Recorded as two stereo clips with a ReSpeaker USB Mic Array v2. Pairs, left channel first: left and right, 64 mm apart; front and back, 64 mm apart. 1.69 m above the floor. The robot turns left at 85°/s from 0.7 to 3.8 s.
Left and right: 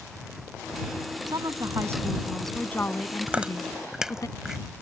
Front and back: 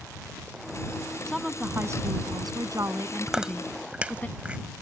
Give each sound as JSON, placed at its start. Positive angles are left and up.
{"t": 1.3, "sound": "a woman speaking", "azimuth_deg": -85}
{"t": 3.3, "sound": "chewing", "azimuth_deg": -115}